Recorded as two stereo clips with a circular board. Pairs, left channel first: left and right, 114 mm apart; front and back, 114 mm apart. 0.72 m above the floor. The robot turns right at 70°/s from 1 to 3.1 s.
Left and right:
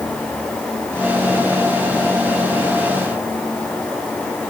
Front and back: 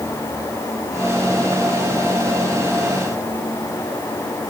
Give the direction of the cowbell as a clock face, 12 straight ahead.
No cowbell in this recording.